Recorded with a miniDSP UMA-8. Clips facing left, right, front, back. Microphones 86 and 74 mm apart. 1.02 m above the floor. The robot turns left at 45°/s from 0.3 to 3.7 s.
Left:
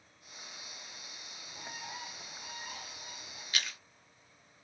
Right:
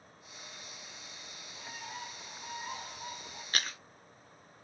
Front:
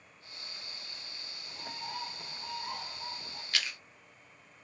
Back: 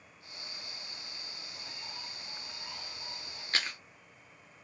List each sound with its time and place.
1.5 s a bird: 30° left, 1.2 m; by 3.4 s 55° right, 1.2 m
3.5 s chewing: 130° right, 0.5 m; by 3.8 s 135° right, 0.5 m